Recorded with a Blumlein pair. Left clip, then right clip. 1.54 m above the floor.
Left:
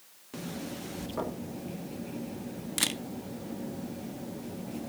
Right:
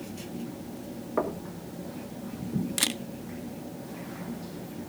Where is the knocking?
30° right, 2.5 m.